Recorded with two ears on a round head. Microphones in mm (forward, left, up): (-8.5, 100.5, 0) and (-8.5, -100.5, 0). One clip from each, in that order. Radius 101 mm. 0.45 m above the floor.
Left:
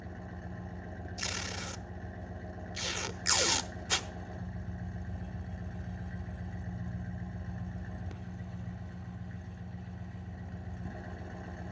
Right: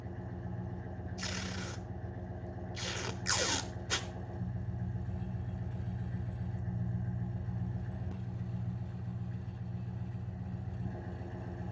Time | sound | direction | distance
0.0 | an engine running | 70° left (ahead or behind) | 1.7 m
1.2 | tape being pulled | 30° left (ahead or behind) | 0.8 m